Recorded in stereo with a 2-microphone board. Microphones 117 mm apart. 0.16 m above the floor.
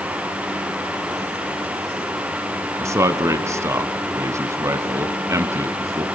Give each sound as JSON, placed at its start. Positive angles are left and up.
{"t": 2.8, "sound": "a man speaking", "side_deg": -25, "distance_m": 1.1}